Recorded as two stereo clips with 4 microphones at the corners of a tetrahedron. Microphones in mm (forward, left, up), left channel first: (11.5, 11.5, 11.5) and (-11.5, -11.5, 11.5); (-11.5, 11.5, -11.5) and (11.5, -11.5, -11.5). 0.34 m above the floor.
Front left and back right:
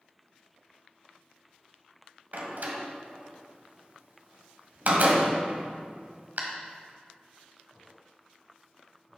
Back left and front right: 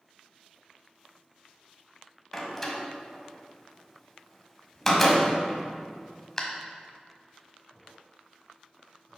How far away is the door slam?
About 1.4 m.